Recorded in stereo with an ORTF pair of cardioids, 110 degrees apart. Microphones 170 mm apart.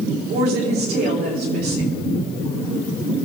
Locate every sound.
0.3 s a woman speaking: 70° right, 4 m